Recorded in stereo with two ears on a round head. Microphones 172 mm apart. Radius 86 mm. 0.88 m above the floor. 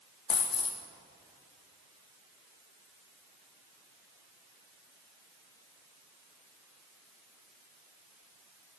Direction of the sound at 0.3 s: 30° left (ahead or behind).